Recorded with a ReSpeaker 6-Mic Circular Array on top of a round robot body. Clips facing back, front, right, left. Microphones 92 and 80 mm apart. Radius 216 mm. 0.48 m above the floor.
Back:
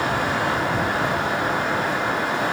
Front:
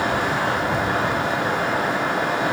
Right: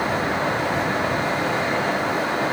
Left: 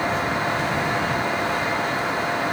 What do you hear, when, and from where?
Only background noise.